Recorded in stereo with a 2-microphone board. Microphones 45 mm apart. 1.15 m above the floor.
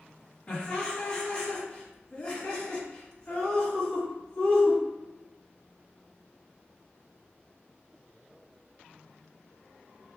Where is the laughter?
25° left (ahead or behind), 1.3 m.